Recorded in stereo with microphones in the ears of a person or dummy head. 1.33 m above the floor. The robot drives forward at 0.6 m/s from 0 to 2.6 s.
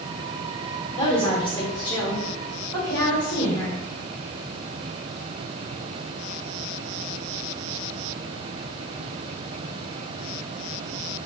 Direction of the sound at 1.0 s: 30° left (ahead or behind).